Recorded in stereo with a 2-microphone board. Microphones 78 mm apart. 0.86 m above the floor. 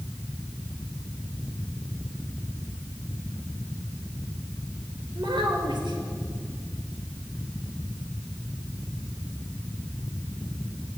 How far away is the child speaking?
About 3 m.